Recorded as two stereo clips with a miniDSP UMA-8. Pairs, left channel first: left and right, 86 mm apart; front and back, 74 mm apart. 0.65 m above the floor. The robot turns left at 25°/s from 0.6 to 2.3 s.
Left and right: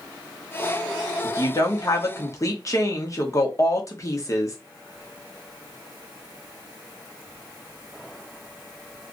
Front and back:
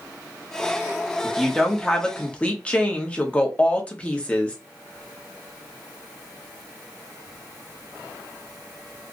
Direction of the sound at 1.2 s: 90° left.